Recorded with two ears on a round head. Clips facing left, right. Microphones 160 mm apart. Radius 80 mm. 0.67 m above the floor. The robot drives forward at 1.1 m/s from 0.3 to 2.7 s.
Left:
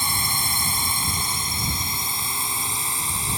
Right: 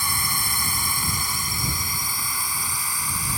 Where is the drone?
20° left (ahead or behind).